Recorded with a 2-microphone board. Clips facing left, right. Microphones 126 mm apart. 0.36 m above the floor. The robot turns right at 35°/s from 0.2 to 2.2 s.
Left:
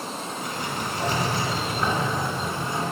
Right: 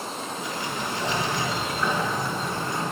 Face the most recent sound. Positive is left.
turn(degrees=145)